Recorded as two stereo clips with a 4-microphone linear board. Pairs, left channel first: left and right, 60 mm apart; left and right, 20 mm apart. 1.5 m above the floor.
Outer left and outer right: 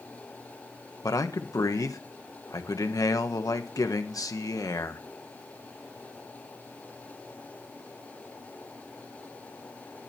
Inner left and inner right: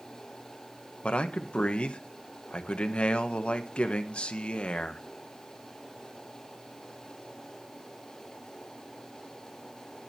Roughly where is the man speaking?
Left.